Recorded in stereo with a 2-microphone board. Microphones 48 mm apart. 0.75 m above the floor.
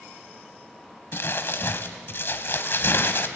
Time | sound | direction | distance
1.1 | crumpling | 50° left (ahead or behind) | 1.1 m